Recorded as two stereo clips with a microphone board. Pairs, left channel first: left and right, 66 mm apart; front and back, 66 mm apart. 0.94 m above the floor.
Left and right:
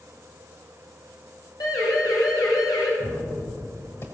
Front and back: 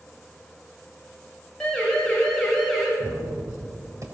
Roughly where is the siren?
Left.